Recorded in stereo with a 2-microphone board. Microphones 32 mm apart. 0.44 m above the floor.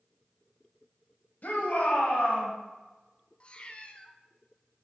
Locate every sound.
1.4 s a shout: 60° left (ahead or behind), 2.0 m; by 2.5 s 70° left (ahead or behind), 3 m
3.4 s a cat meowing: 35° left (ahead or behind), 0.6 m